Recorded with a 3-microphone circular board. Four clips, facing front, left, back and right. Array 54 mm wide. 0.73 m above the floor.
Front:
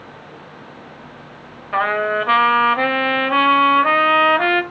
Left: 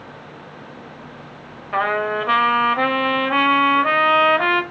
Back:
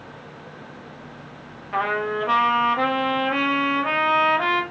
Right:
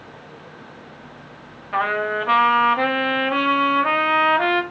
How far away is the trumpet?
About 1.1 m.